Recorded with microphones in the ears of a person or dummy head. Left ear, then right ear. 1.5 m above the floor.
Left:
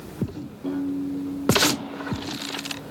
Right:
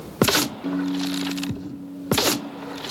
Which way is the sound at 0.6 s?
70° right (ahead or behind).